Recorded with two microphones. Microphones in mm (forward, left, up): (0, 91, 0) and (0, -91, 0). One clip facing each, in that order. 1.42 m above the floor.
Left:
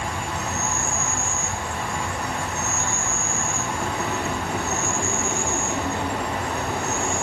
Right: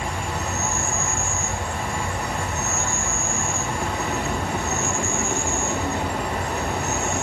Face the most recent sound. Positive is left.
turn(degrees=-45)  # may be behind; listen again after turning